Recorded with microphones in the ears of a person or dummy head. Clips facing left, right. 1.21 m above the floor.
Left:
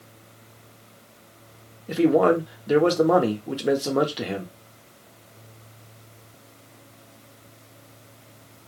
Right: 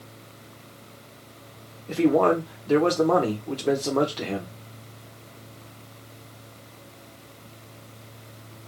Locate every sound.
1.9 s a man speaking: 15° left (ahead or behind), 0.8 m